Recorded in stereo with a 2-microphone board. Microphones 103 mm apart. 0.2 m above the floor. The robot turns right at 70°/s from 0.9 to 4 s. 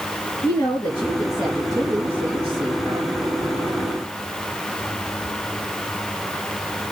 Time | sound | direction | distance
0.4 | a woman speaking | 135° left | 4.5 m